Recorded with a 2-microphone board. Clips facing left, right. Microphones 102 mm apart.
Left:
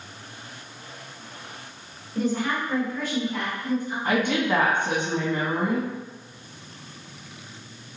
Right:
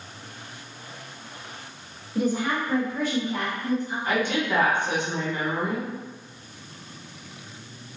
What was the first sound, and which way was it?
A woman speaking, 10° right (ahead or behind).